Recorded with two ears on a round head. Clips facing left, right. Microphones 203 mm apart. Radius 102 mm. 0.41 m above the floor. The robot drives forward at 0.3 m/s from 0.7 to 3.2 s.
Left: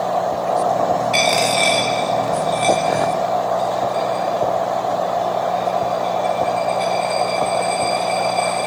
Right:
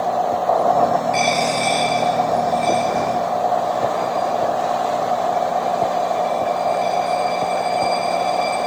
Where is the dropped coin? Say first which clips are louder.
Left 1 dB; 40° left (ahead or behind), 6.5 m; by 8.7 s 45° left (ahead or behind), 6.5 m.